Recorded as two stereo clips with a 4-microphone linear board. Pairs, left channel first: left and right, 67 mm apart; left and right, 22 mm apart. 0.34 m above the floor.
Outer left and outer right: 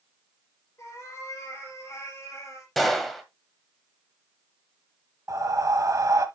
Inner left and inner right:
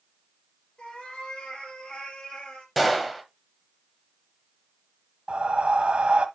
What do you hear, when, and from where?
0.8 s a cat meowing: 45° left (ahead or behind), 4.5 m
2.8 s a gunshot: centre (ahead or behind), 1.6 m
5.3 s breathing: 55° right (ahead or behind), 1.1 m